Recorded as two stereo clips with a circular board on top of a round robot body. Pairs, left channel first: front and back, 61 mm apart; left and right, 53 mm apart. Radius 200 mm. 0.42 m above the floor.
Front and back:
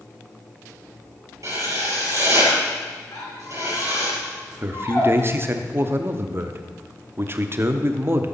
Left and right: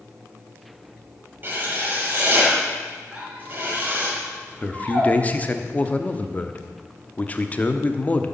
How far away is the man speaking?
About 1.3 m.